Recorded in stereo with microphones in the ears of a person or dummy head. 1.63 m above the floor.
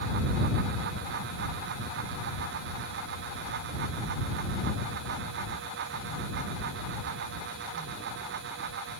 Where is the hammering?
No hammering in this recording.